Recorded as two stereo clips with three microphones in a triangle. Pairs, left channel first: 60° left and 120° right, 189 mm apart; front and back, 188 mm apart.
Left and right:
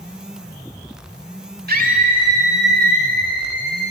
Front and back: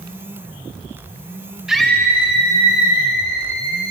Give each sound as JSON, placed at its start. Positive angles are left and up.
{"t": 1.7, "sound": "a scream", "azimuth_deg": -95, "distance_m": 1.5}